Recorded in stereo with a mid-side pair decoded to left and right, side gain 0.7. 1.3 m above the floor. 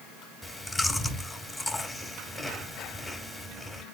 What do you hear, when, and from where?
0.4 s chewing: 10° left, 2.5 m